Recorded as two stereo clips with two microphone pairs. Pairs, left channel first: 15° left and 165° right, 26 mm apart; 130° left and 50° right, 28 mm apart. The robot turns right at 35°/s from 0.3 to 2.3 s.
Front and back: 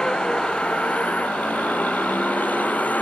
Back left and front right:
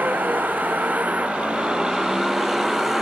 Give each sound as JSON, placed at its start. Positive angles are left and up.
{"t": 0.0, "sound": "a vehicle", "azimuth_deg": -40}